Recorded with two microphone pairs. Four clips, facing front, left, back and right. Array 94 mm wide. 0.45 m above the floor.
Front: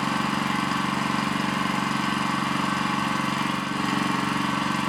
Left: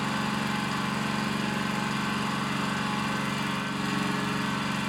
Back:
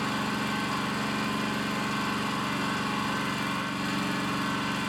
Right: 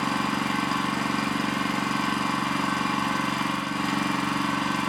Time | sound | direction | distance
0.0 | an engine running | 35° right | 0.7 m